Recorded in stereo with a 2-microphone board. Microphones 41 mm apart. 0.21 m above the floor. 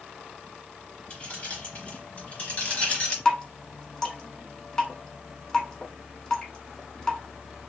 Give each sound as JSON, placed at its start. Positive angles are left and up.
{"t": 1.1, "sound": "keys jangling", "side_deg": 30, "distance_m": 1.5}
{"t": 3.2, "sound": "dripping", "side_deg": 15, "distance_m": 0.9}